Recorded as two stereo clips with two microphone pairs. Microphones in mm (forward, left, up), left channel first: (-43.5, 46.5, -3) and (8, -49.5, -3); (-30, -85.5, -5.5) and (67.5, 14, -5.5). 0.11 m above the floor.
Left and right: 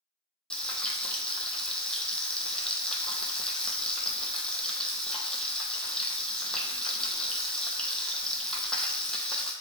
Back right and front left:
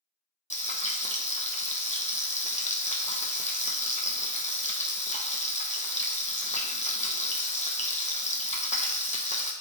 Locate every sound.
0.5 s frying: 160° right, 0.6 m